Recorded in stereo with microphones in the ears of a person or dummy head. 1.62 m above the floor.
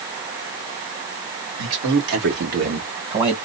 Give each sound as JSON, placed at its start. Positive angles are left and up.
{"t": 1.6, "sound": "a man speaking", "side_deg": -75, "distance_m": 1.7}